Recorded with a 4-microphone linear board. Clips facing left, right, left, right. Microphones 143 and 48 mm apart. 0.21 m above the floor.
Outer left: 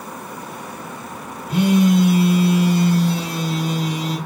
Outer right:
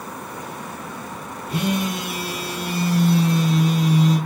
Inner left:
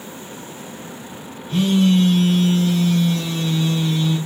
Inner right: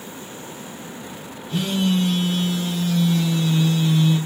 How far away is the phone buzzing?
About 4 m.